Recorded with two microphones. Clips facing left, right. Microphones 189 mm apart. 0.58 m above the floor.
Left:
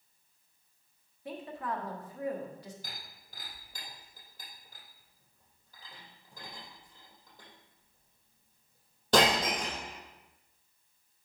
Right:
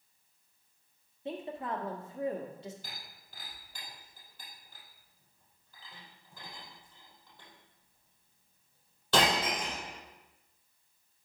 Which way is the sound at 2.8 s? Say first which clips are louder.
Left 1 dB; 45° left (ahead or behind).